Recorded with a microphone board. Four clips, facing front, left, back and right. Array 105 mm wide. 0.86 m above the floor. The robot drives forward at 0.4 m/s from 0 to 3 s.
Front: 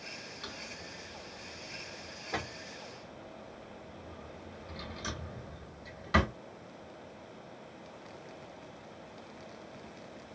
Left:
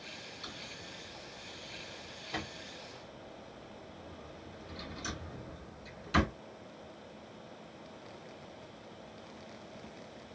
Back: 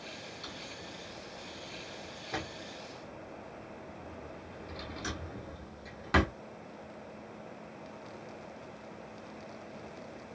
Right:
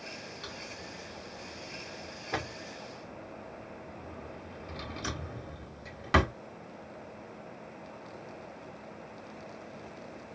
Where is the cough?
No cough in this recording.